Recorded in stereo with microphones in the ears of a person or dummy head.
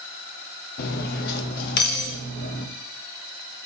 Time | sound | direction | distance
0.8 | cutlery clinking | 55° left (ahead or behind) | 0.8 m